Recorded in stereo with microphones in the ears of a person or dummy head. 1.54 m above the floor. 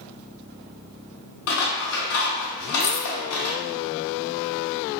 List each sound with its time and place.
1.5 s scissors: 80° left, 0.8 m
2.8 s keys jangling: 60° left (ahead or behind), 1.0 m